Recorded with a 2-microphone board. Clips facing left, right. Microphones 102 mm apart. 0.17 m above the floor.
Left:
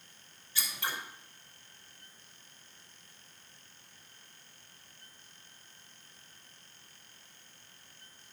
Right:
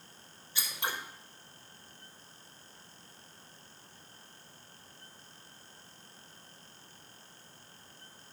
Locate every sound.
0.6 s scissors: 20° right (ahead or behind), 4.5 m